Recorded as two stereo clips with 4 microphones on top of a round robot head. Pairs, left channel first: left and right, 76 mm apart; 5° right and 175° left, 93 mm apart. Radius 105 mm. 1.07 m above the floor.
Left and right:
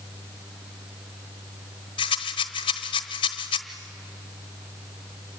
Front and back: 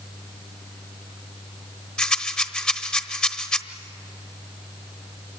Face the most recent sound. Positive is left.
turn(degrees=75)